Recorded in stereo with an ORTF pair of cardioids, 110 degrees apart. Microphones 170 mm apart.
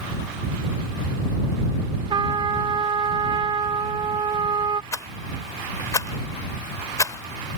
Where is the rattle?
20° left.